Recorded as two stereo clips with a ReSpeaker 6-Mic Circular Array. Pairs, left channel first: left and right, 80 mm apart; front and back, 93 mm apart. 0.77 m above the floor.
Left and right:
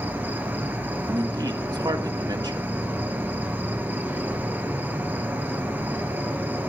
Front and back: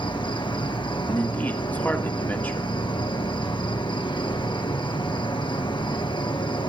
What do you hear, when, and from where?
0.0 s an insect: 25° right, 2.0 m
1.1 s a man speaking: 70° right, 1.8 m